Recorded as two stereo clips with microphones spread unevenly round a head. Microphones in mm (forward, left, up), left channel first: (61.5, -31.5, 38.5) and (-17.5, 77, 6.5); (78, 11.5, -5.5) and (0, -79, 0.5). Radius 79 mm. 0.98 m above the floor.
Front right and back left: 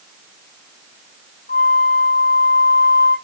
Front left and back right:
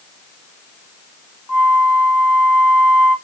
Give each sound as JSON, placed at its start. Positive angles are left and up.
{"t": 1.5, "sound": "a flute", "azimuth_deg": -60, "distance_m": 1.9}